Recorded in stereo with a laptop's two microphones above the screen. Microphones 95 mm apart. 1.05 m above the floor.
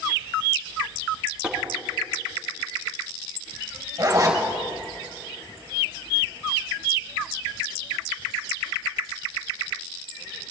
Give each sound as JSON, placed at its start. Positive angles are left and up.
{"t": 1.4, "sound": "tapping", "side_deg": -10, "distance_m": 3.0}
{"t": 4.0, "sound": "a zipper", "side_deg": -40, "distance_m": 4.5}